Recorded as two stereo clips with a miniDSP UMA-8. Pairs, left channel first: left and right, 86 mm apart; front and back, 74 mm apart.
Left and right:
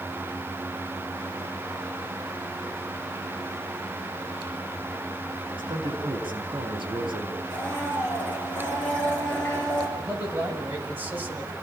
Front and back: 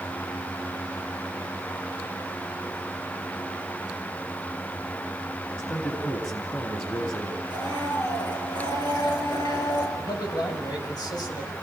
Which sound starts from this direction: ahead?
A blender, at 7.5 s.